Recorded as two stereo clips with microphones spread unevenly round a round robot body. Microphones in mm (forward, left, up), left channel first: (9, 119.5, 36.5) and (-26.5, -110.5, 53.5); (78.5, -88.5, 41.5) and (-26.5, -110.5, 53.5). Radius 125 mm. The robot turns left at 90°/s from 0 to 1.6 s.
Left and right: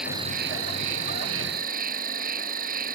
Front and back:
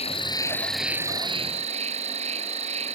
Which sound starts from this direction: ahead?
An insect, at 0.0 s.